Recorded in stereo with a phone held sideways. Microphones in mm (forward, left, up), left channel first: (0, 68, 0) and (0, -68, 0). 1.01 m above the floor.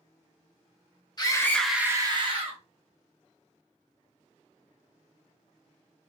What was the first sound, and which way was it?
A scream, 35° left (ahead or behind).